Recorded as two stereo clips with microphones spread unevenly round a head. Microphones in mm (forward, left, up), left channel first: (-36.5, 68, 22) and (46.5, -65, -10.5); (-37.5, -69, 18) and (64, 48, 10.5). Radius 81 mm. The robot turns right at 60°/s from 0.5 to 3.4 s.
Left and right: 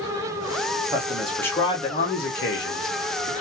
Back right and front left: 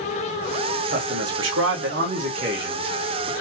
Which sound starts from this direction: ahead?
A man speaking, at 0.9 s.